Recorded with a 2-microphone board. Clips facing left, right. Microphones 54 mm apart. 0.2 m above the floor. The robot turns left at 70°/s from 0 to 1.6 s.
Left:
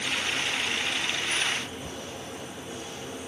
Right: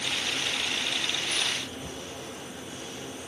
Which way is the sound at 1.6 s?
20° left (ahead or behind).